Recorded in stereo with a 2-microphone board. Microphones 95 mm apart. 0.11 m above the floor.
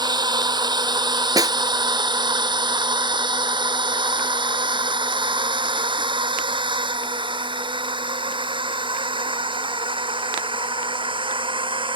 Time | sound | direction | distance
0.0 | a drone | 50° right (ahead or behind) | ?
1.4 | a snare drum | 40° right (ahead or behind) | ?